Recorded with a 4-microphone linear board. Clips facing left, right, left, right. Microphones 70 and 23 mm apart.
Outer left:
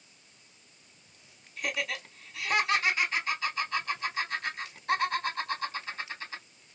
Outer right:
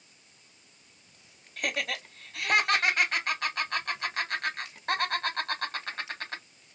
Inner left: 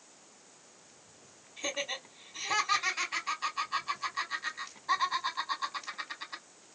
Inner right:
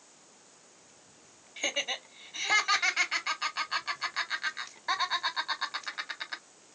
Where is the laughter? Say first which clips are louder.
Outer right 1 dB, inner right 3 dB; 60° right (ahead or behind), 3 m.